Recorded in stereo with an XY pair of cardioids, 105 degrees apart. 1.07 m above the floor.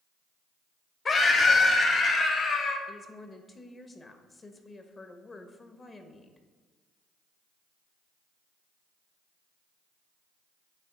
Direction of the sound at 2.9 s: 30° left.